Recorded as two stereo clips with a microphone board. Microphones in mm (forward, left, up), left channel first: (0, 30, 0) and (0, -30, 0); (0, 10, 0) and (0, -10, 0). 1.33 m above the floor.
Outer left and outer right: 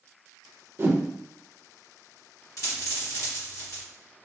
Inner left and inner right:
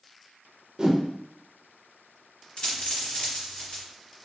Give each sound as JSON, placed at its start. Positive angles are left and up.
{"t": 0.8, "sound": "a whoosh", "side_deg": -40, "distance_m": 0.5}
{"t": 2.6, "sound": "a dropped coin", "side_deg": 65, "distance_m": 1.5}